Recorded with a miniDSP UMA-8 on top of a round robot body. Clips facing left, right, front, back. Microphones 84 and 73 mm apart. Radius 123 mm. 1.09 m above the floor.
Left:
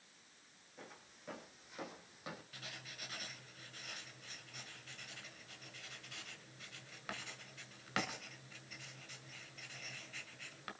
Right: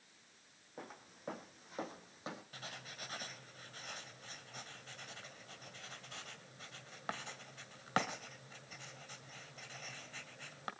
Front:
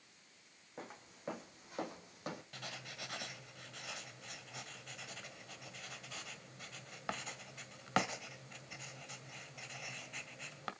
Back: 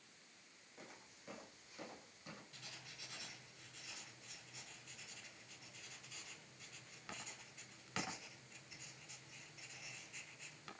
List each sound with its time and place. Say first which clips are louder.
0.8 s footsteps: right 5 dB, front 8 dB; 45° right, 4 m; by 2.4 s 25° right, 3 m
2.5 s writing: right 3 dB, front 9 dB; 35° right, 1.9 m